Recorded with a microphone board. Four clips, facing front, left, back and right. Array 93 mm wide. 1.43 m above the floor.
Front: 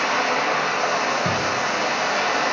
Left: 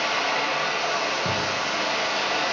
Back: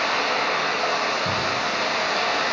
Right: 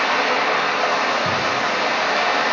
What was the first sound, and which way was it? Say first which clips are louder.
Running water: right 6 dB, front 2 dB; 70° right.